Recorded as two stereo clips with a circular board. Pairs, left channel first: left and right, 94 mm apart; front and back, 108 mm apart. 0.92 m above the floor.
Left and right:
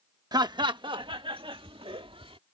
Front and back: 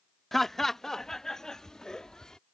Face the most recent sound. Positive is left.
turn(degrees=-85)